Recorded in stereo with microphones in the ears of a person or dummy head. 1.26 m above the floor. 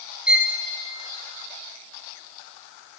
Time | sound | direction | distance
0.3 | a violin | 5° right (ahead or behind) | 0.6 m